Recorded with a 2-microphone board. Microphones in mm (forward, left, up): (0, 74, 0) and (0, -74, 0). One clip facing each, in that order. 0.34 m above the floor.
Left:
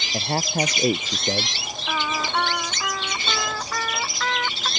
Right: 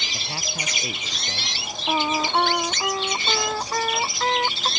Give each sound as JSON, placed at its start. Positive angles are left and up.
{"t": 0.1, "sound": "a man speaking", "side_deg": 50}
{"t": 1.9, "sound": "singing", "side_deg": -30}